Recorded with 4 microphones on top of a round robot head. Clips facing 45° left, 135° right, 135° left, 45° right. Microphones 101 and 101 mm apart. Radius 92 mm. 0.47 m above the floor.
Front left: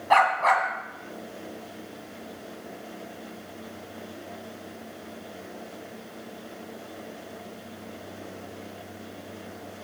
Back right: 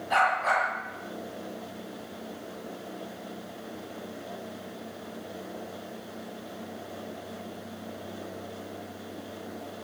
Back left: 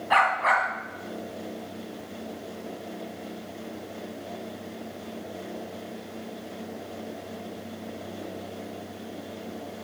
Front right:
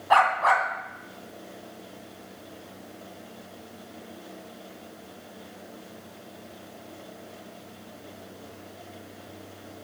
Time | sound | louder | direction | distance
0.1 | a dog barking | front left 5 dB, front right 2 dB | 15° left | 2 m